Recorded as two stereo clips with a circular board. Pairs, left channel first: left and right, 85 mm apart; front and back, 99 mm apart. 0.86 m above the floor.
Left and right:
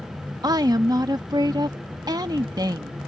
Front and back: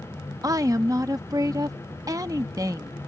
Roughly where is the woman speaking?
Behind right.